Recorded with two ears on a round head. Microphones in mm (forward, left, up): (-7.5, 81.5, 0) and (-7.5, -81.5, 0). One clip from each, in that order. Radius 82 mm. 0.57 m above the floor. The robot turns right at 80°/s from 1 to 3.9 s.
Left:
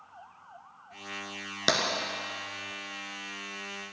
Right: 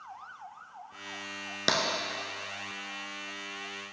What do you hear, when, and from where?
1.7 s tapping: 5° left (ahead or behind), 1.1 m; by 1.9 s 15° left (ahead or behind), 1.1 m